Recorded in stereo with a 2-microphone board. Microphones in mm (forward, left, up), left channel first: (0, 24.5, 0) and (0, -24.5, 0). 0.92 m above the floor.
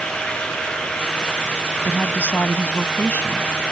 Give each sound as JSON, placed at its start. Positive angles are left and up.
{"t": 1.9, "sound": "a woman speaking", "side_deg": 35}